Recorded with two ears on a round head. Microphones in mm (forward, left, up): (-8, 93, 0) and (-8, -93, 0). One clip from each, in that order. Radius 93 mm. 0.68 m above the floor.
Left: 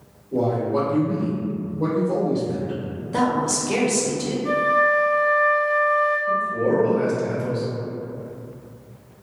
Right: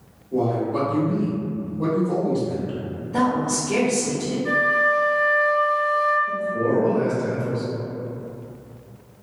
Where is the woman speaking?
40° left (ahead or behind), 0.8 m.